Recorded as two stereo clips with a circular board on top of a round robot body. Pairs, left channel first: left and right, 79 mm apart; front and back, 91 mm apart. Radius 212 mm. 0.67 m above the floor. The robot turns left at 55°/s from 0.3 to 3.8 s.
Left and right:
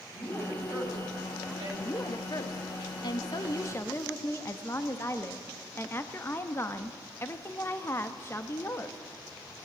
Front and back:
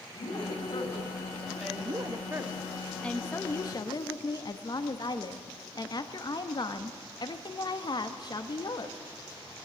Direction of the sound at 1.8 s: 145° left.